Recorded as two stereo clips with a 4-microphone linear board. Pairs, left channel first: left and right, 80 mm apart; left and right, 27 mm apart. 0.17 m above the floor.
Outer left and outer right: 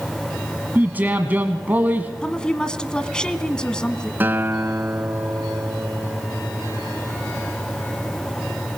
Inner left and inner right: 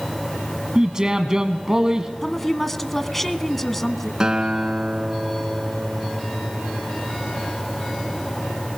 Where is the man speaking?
25° right (ahead or behind), 1.2 m.